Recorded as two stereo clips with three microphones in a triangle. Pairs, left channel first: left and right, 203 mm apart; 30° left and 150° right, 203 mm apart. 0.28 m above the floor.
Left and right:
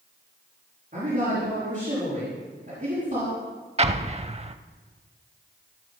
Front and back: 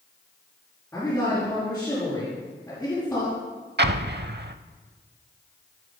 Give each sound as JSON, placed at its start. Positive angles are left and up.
{"t": 0.9, "sound": "a man speaking", "azimuth_deg": -50, "distance_m": 5.5}
{"t": 3.8, "sound": "an explosion", "azimuth_deg": -145, "distance_m": 0.5}